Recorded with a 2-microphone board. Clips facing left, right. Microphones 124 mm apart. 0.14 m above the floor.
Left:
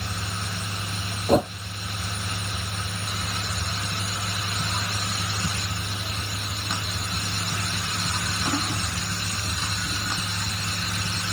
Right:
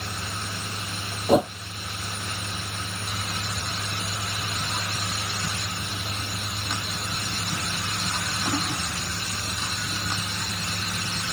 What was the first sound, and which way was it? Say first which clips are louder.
A whoosh: right 1 dB; 5° right (ahead or behind).